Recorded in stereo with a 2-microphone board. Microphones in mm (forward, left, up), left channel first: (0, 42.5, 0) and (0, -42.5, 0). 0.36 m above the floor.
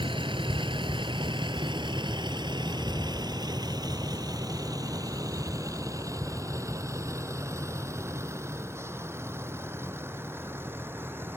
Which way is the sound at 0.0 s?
85° right.